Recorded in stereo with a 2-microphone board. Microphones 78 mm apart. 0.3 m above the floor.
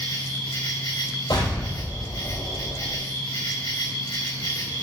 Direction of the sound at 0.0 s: 55° left (ahead or behind).